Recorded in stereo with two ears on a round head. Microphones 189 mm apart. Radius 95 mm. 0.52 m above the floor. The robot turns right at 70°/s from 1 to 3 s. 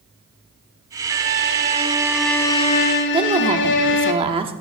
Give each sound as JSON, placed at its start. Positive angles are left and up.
{"t": 1.1, "sound": "a violin", "azimuth_deg": -80, "distance_m": 1.1}
{"t": 3.1, "sound": "a woman speaking", "side_deg": -25, "distance_m": 1.1}